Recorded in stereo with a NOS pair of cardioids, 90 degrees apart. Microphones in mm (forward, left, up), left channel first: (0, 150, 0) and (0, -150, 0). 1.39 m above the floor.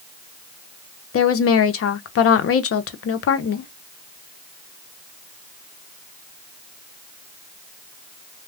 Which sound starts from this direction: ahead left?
A woman speaking, at 1.1 s.